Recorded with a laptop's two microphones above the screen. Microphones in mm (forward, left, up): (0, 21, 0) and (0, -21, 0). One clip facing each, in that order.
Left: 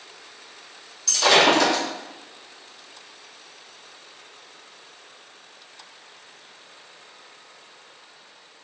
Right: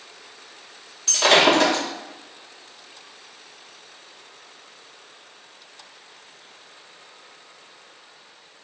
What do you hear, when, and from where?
1.1 s breaking glass: 25° right (ahead or behind), 0.7 m